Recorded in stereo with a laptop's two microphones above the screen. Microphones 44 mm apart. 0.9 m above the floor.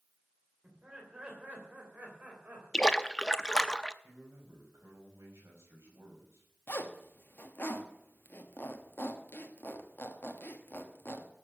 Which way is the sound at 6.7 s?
50° left (ahead or behind).